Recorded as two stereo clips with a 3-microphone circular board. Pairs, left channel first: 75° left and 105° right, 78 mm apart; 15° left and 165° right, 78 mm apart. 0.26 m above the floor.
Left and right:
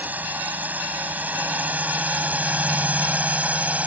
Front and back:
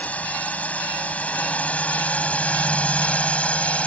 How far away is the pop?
No pop in this recording.